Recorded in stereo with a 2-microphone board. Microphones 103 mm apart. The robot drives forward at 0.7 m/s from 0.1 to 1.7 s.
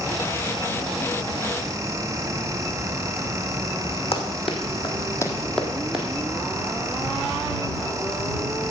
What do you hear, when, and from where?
4.1 s running footsteps: 70° left (ahead or behind), 2 m; by 6.1 s 10° right (ahead or behind), 2 m